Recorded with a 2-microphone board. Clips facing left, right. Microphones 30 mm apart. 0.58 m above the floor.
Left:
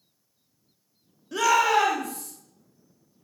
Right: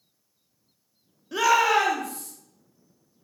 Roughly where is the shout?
Centre.